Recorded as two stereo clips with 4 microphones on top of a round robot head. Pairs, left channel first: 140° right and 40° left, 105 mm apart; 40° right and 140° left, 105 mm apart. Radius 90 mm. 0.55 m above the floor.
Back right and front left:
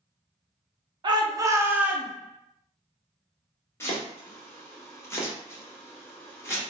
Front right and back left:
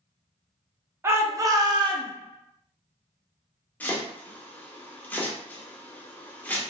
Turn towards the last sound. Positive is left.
turn(degrees=-100)